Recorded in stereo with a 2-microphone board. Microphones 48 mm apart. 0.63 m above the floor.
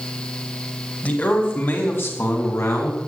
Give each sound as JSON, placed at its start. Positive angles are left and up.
{"t": 1.0, "sound": "a man speaking", "side_deg": 35, "distance_m": 4.0}